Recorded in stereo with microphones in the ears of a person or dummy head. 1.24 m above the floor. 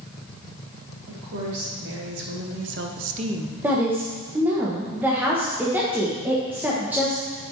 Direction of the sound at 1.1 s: 65° right (ahead or behind).